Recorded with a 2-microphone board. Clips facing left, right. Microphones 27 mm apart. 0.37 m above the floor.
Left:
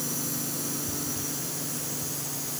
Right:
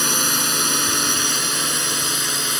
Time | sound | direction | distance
0.0 | a drone | 70° right (ahead or behind) | ?